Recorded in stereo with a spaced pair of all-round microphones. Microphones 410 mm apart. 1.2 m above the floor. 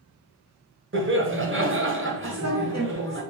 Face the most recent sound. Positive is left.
turn(degrees=-40)  # may be behind; listen again after turning